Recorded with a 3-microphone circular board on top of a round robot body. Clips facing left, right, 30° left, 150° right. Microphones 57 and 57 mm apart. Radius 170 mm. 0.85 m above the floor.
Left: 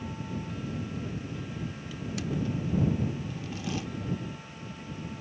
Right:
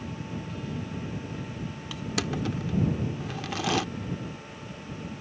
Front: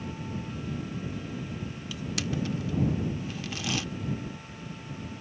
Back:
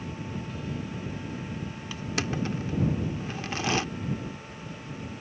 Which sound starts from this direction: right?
Crushing, at 1.9 s.